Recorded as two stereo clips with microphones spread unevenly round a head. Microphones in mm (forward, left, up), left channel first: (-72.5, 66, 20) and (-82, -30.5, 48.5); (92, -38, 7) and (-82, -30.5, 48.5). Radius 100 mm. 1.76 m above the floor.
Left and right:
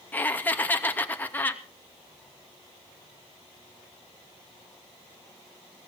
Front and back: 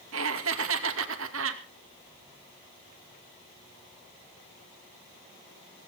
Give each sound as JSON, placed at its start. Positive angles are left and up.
{"t": 0.1, "sound": "laughter", "azimuth_deg": 160, "distance_m": 2.5}